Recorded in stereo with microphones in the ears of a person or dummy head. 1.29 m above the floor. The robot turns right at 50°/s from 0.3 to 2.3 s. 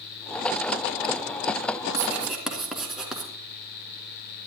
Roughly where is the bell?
I don't hear a bell.